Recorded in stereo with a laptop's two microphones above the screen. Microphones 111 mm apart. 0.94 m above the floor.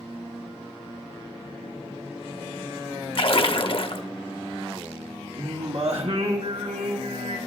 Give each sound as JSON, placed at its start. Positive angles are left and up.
{"t": 3.1, "sound": "a splash", "side_deg": 55, "distance_m": 0.8}
{"t": 5.4, "sound": "singing", "side_deg": -70, "distance_m": 1.2}